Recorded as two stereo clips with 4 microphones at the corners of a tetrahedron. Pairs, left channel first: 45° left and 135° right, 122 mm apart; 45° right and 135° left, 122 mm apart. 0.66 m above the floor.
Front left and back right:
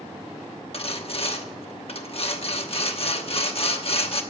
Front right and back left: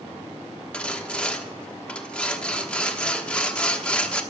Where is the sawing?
30° left, 1.0 m.